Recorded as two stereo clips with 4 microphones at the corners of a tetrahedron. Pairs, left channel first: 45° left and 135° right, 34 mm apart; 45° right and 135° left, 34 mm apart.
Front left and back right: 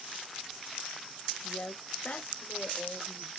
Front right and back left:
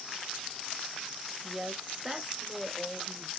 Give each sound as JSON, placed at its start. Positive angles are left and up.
{"t": 1.4, "sound": "a woman speaking", "azimuth_deg": 70, "distance_m": 1.1}